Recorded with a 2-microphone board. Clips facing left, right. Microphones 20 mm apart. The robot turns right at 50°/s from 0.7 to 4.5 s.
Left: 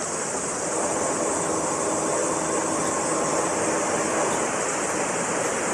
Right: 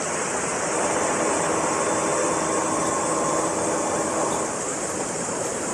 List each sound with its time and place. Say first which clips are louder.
0.0 s running water: right 2 dB; 115° right; by 5.8 s 75° left